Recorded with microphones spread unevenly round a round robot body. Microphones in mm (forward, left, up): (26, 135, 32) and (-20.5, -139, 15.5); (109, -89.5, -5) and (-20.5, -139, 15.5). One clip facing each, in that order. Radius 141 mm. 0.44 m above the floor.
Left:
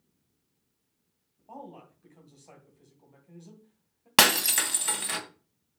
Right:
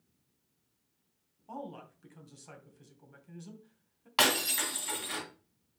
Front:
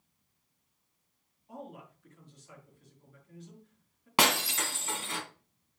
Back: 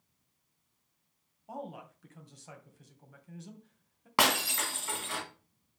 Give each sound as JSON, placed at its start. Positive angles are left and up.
{"t": 1.5, "sound": "a man speaking", "azimuth_deg": -160, "distance_m": 2.5}
{"t": 4.2, "sound": "breaking glass", "azimuth_deg": 100, "distance_m": 2.0}